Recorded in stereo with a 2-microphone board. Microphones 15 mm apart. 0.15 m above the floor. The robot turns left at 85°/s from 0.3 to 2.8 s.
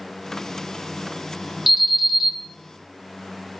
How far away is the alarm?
About 0.8 m.